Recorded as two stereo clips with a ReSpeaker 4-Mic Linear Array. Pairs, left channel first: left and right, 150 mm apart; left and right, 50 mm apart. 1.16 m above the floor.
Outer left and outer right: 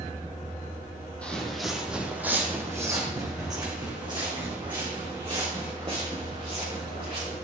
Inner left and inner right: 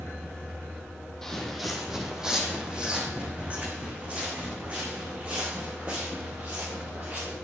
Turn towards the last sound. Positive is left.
turn(degrees=-40)  # may be behind; listen again after turning